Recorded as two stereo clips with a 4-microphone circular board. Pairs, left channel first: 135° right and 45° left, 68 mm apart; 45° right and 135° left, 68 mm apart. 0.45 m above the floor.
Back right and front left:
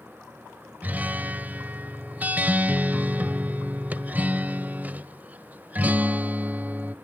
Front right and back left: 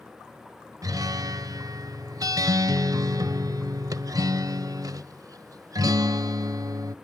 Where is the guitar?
110° left, 0.7 m.